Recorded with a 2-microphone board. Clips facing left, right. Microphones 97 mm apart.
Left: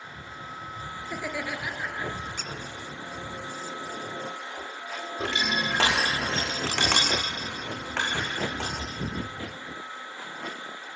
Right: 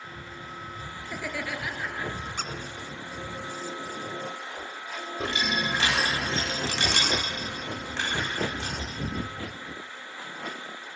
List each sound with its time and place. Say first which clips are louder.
1.0 s laughter: left 1 dB; 10° left (ahead or behind), 3.5 m
2.4 s a squeak: right 3 dB; 55° right (ahead or behind), 1.3 m
5.2 s crushing: even; 75° left (ahead or behind), 5.5 m